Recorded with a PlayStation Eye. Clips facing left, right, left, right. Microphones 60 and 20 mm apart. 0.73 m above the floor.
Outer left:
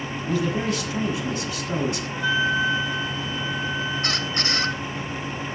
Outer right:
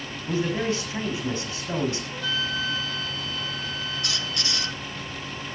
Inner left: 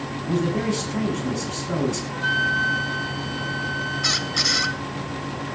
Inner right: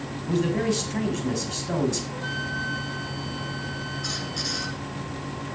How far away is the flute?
About 1.5 m.